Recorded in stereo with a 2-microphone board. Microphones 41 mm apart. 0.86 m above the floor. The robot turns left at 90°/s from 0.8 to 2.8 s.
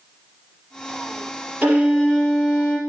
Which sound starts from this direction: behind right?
A violin, at 1.6 s.